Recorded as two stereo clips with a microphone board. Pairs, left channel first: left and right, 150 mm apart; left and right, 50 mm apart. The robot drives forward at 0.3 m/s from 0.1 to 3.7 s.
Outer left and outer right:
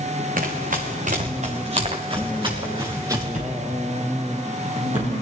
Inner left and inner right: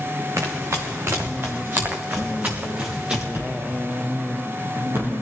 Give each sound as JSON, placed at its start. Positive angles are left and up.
{"t": 0.4, "sound": "running footsteps", "side_deg": -65, "distance_m": 2.5}
{"t": 3.3, "sound": "a thud", "side_deg": -55, "distance_m": 5.5}